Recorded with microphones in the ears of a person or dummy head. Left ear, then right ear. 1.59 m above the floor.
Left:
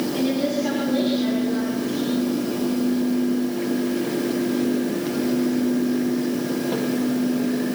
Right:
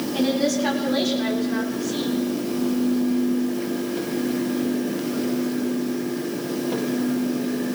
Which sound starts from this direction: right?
A woman speaking, at 0.1 s.